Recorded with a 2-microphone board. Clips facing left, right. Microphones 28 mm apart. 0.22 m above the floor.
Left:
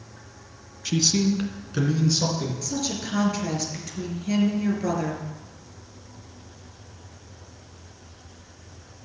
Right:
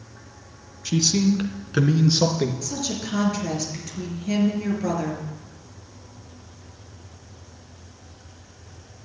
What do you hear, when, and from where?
0.8 s a man speaking: 15° left (ahead or behind), 1.6 m; by 2.5 s 45° right (ahead or behind), 3 m
2.6 s a woman speaking: centre (ahead or behind), 4.5 m